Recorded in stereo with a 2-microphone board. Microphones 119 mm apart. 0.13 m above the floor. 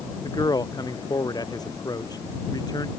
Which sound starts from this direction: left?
A man speaking, at 0.2 s.